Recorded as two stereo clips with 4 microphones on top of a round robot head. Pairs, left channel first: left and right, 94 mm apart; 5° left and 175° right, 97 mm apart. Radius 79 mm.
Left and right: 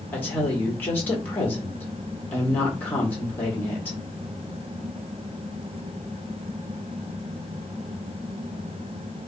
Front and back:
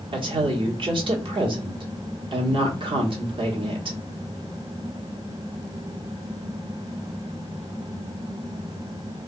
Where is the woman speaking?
160° left, 1.6 m.